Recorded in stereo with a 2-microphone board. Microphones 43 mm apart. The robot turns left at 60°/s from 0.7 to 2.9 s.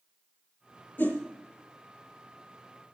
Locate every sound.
1.0 s a whoosh: 55° left (ahead or behind), 5 m; by 1.2 s 40° left (ahead or behind), 5 m